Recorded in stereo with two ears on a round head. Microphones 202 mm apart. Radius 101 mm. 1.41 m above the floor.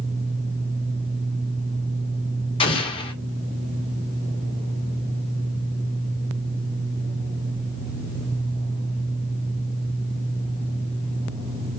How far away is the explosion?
About 0.7 m.